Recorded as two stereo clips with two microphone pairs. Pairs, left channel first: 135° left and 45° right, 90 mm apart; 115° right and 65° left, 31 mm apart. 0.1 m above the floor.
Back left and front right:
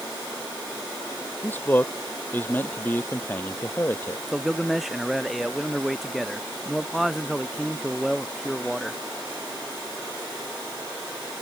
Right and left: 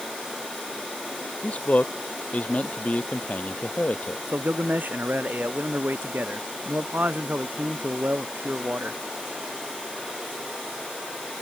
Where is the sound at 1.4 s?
155° right.